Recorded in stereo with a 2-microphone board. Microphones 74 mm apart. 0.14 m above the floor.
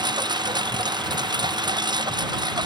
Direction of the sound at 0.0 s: 70° right (ahead or behind).